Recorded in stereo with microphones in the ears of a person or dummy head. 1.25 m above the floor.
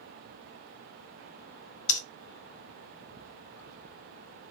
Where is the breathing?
40° left (ahead or behind), 0.8 m.